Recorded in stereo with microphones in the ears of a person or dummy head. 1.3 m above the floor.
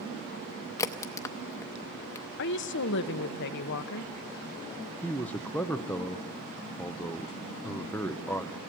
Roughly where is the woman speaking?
Left.